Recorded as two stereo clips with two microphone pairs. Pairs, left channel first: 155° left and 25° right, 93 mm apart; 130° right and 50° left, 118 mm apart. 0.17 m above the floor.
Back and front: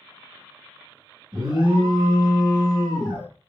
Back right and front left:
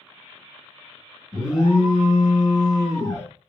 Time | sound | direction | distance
1.3 | an alarm | 35° right | 3 m